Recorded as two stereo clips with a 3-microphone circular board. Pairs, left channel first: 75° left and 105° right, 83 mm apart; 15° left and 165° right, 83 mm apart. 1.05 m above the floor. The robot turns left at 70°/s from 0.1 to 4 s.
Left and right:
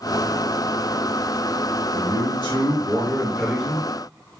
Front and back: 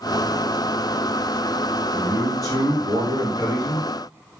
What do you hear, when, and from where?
1.9 s a man speaking: 95° left, 1.5 m; by 3.9 s 45° right, 1.5 m